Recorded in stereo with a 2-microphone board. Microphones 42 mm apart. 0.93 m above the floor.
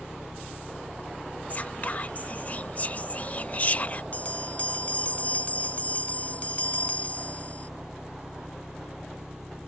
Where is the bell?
35° left (ahead or behind).